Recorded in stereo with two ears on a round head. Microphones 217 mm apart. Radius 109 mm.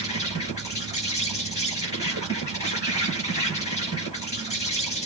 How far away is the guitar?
I don't hear a guitar.